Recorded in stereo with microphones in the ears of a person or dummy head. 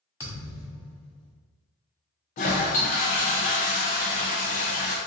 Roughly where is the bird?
I don't hear a bird.